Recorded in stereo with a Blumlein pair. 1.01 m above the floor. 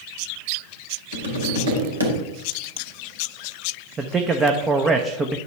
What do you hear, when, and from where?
1.1 s tapping: 70° right, 2.5 m
4.0 s a man speaking: 20° right, 0.8 m